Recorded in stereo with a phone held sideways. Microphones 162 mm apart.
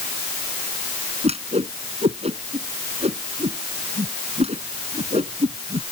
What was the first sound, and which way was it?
A whoosh, 40° right (ahead or behind).